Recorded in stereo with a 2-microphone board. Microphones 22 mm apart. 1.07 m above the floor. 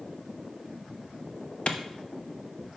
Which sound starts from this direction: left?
A clap, at 1.7 s.